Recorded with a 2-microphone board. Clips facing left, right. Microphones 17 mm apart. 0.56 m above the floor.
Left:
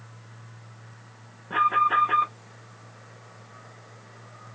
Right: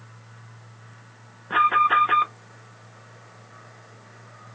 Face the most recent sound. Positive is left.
turn(degrees=-30)  # may be behind; listen again after turning